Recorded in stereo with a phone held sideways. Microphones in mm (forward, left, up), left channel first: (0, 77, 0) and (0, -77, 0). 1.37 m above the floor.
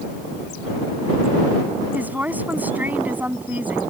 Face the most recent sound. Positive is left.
turn(degrees=-10)  # may be behind; listen again after turning